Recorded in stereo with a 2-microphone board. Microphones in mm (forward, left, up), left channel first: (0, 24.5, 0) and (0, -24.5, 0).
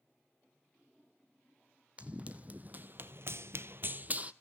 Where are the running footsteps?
25° right (ahead or behind), 1.4 m.